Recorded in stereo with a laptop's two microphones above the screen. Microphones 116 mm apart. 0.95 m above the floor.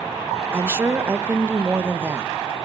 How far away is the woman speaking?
About 1.0 m.